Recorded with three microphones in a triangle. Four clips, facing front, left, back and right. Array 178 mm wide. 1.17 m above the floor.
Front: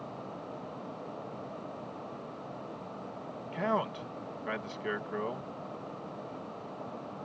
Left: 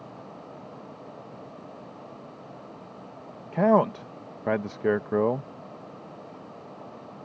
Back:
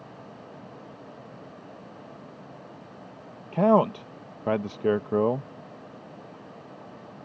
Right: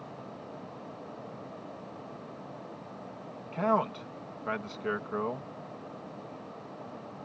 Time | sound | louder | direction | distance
3.5 | a man speaking | left 7 dB, back 11 dB | 140° left | ?